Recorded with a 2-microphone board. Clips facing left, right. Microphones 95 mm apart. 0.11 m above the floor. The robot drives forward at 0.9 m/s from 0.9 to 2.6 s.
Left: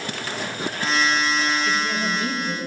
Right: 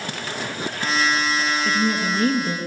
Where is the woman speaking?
40° right (ahead or behind), 2.0 m; by 2.6 s 45° right (ahead or behind), 1.8 m.